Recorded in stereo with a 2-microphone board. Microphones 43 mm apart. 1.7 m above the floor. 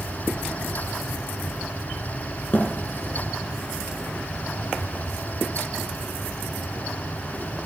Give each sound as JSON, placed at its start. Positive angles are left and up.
{"t": 2.5, "sound": "a thud", "side_deg": 40, "distance_m": 4.0}